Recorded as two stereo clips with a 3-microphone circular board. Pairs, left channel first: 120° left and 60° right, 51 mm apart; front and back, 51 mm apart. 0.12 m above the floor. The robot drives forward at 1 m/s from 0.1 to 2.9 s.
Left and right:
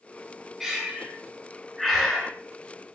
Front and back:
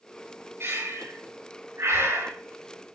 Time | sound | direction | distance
0.6 | breathing | 145° right | 4 m